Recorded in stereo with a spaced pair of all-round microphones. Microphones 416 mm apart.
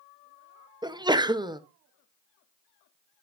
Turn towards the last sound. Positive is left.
turn(degrees=-10)  # may be behind; listen again after turning